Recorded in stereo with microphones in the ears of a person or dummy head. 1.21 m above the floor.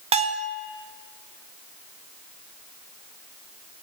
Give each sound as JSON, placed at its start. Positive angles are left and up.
{"t": 0.1, "sound": "a bell", "side_deg": -25, "distance_m": 0.5}